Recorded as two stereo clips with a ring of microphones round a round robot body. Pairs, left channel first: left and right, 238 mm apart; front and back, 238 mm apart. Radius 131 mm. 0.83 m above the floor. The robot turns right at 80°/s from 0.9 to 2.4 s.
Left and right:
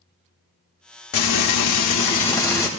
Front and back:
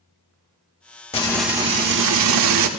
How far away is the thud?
I don't hear a thud.